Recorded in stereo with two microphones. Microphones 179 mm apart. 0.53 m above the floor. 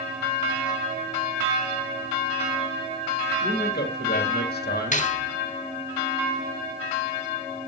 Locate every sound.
3.4 s a man speaking: 65° left (ahead or behind), 2.5 m
4.9 s cutlery clinking: 45° left (ahead or behind), 1.1 m